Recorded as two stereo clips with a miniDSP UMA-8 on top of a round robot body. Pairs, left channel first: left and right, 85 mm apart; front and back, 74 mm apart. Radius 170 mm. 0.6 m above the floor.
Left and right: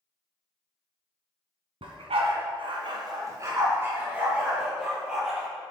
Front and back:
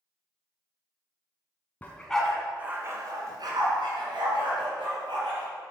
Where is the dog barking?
70° right, 1.8 m; by 5.5 s 175° right, 4.5 m.